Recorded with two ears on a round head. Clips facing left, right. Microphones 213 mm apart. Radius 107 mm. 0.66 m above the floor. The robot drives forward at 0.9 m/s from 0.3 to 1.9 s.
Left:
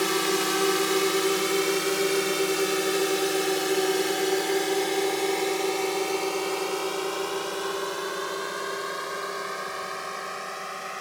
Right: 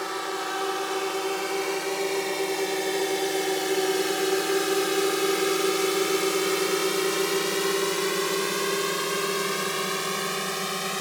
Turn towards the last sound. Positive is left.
turn(degrees=-55)  # may be behind; listen again after turning